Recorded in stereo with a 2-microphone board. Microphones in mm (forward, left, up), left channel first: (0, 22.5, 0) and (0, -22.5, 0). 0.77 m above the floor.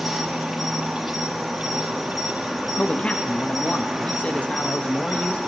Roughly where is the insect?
Centre.